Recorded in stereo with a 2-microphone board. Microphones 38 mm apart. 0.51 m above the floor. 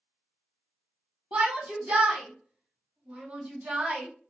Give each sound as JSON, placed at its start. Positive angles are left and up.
{"t": 1.3, "sound": "a shout", "side_deg": -30, "distance_m": 1.1}